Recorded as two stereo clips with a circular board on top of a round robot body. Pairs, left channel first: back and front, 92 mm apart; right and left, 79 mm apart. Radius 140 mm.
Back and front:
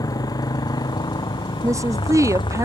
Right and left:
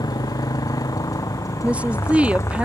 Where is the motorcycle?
130° right; by 2.7 s 145° right.